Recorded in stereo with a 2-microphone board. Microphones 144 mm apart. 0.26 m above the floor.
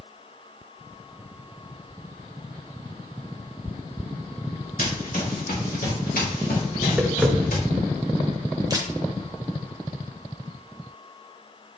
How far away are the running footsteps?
About 3 m.